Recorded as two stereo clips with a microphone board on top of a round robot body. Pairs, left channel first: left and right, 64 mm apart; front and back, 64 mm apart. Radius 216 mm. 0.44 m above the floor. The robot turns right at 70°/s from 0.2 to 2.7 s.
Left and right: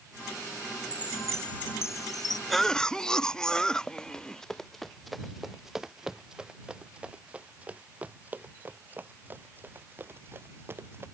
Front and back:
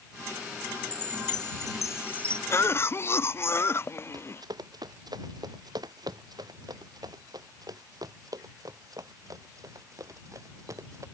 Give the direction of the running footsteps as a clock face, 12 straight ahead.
6 o'clock.